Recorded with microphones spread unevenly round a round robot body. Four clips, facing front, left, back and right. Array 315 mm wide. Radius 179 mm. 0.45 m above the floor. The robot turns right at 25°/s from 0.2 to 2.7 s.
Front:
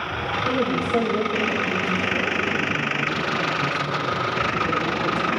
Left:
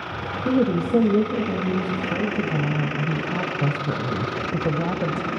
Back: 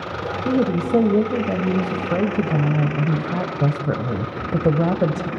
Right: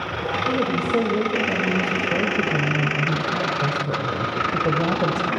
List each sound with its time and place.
0.5 s a woman speaking: 125° left, 1.7 m; by 5.3 s 175° right, 1.7 m